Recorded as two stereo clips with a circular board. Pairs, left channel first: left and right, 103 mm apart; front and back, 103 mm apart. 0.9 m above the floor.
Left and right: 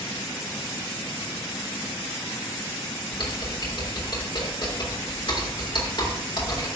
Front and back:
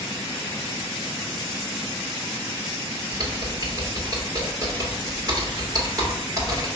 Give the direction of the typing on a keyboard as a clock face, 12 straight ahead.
8 o'clock.